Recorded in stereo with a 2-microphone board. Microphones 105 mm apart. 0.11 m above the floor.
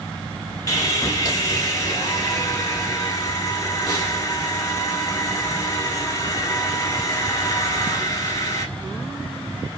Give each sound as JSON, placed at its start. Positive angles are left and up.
{"t": 0.7, "sound": "sawing", "side_deg": 35, "distance_m": 0.7}